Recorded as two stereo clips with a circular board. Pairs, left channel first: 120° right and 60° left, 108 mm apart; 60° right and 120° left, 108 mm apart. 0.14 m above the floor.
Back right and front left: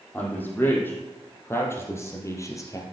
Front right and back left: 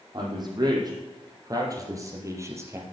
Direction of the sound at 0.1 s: 165° left.